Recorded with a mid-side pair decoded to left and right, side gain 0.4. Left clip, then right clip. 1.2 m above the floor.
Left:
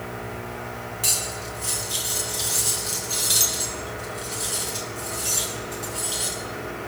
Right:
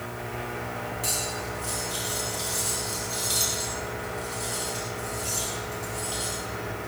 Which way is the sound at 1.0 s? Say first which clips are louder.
Left 5 dB; 55° left.